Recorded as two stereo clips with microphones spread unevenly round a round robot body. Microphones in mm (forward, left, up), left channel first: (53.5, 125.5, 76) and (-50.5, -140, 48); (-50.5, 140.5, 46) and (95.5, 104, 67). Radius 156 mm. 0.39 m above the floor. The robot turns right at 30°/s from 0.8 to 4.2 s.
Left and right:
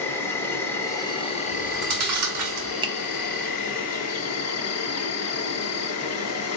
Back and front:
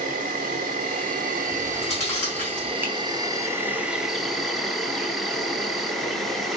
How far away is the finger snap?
About 0.8 m.